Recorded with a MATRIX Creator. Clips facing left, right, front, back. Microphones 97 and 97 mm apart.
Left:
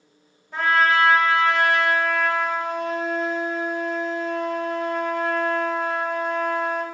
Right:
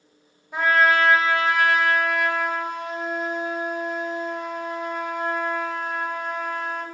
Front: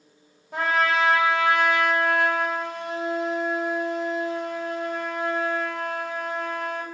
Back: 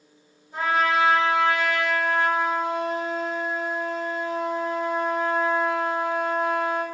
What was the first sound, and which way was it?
A trumpet, 10° right.